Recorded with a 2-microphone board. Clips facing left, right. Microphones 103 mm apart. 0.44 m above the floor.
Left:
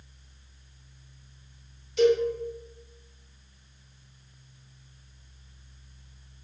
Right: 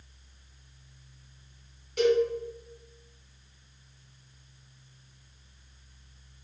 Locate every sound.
2.0 s a cowbell: 50° right (ahead or behind), 2.0 m